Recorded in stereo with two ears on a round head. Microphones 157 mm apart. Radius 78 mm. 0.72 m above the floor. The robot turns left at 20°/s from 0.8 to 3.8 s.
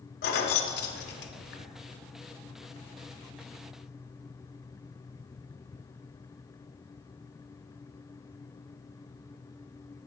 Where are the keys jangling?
60° left (ahead or behind), 0.5 m; by 1.7 s 70° left (ahead or behind), 0.5 m.